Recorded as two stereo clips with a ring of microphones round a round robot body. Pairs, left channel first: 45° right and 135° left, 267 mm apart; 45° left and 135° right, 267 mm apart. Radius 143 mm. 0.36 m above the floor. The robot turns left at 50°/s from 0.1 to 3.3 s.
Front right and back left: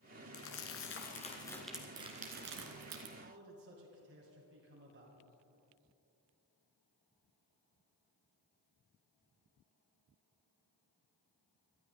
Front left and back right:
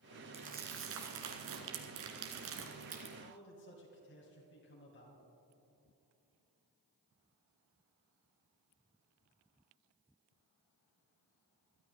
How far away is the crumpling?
About 1.6 m.